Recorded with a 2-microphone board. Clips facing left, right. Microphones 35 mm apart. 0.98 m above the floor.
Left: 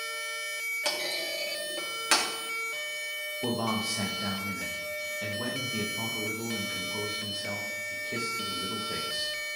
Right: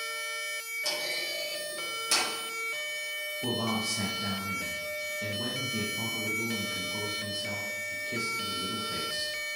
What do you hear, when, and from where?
0.8 s a clunk: 55° left (ahead or behind), 2 m
3.4 s a man speaking: 25° left (ahead or behind), 1.4 m